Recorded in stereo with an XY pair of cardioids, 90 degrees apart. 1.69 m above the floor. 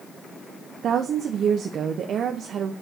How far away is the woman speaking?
About 1.2 m.